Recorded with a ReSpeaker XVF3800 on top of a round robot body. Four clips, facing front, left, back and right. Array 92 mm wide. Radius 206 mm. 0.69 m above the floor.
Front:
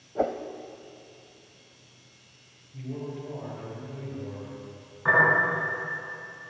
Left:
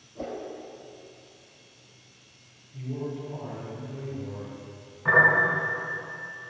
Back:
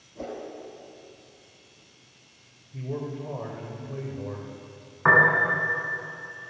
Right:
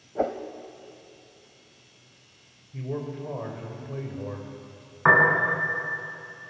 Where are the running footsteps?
No running footsteps in this recording.